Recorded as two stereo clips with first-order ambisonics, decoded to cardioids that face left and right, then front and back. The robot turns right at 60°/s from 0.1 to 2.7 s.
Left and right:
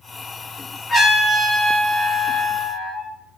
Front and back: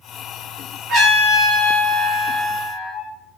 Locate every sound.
0.9 s a trumpet: 160° left, 1.6 m; by 3.1 s 90° right, 1.6 m